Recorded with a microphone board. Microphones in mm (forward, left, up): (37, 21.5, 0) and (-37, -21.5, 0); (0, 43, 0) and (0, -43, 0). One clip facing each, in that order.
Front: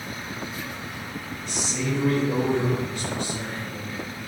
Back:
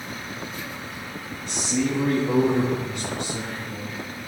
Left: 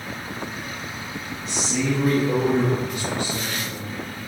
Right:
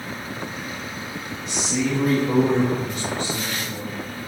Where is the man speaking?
Straight behind, 2.5 m; by 3.9 s 125° right, 3.5 m.